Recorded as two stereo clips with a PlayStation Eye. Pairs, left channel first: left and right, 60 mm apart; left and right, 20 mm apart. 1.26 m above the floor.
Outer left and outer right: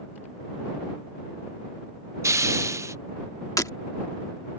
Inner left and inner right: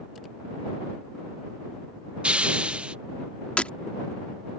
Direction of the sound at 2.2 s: 55° right (ahead or behind).